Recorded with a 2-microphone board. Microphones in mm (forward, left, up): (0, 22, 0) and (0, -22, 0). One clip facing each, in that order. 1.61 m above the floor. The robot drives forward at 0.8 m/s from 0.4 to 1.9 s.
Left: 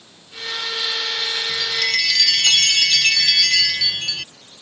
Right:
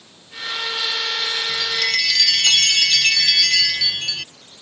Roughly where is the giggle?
No giggle in this recording.